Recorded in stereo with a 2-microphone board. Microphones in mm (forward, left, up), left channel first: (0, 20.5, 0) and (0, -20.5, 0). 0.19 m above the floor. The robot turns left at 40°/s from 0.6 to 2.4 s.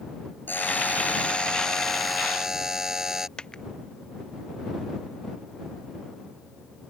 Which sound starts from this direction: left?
A dropped coin, at 3.4 s.